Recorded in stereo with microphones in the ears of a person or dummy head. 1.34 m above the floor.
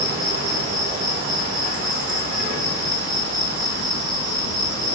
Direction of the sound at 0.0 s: 50° right (ahead or behind).